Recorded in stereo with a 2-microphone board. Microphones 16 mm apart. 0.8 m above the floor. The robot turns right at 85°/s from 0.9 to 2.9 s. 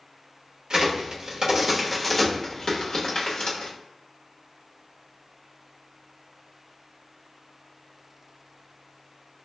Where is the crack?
55° right (ahead or behind), 1.0 m; by 3.7 s 55° left (ahead or behind), 1.0 m.